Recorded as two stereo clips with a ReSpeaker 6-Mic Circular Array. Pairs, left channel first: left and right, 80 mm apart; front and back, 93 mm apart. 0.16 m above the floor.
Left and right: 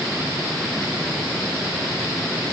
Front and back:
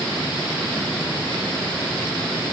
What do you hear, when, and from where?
Only background noise.